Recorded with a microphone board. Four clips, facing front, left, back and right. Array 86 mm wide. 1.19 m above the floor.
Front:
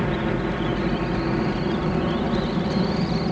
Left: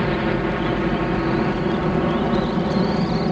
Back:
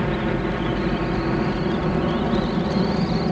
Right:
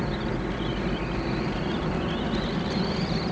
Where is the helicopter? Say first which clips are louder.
Left 8 dB, back 1 dB; 95° left; by 3.3 s 105° left.